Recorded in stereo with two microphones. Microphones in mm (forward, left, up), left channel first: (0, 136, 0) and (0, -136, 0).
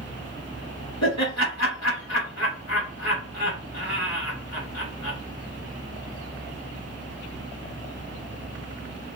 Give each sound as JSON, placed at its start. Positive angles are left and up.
{"t": 1.0, "sound": "laughter", "side_deg": 70, "distance_m": 1.4}